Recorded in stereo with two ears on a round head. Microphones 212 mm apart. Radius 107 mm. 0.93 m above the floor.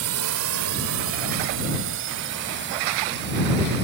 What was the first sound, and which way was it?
A drone, 70° right (ahead or behind).